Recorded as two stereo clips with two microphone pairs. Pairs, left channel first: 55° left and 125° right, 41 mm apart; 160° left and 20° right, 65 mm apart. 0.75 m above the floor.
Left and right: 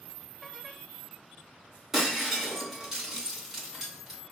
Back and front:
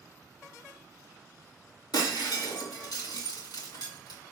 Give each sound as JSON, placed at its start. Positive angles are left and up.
{"t": 1.9, "sound": "breaking glass", "azimuth_deg": 155, "distance_m": 3.0}